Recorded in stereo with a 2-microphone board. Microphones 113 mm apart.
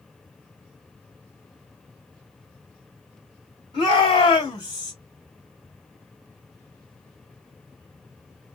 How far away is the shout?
About 3 m.